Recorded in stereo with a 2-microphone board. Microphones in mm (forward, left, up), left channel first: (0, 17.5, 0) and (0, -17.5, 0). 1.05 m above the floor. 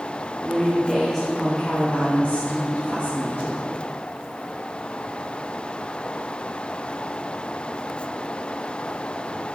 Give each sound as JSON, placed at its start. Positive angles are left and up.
{"t": 0.4, "sound": "a woman speaking", "side_deg": -10, "distance_m": 1.0}